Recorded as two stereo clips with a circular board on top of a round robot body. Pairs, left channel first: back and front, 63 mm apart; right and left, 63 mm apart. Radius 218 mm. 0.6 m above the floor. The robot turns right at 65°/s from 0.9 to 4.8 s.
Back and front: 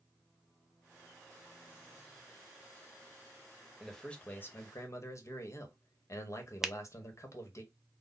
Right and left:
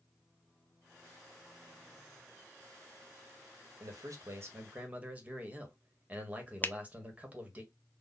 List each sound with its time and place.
3.8 s a man speaking: 90° left, 1.5 m; by 7.6 s 155° left, 1.5 m
6.6 s a finger snap: 75° right, 0.7 m